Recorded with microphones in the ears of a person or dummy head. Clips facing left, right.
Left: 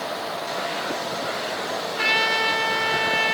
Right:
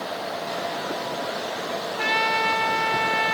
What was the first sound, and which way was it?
A trumpet, 30° left (ahead or behind).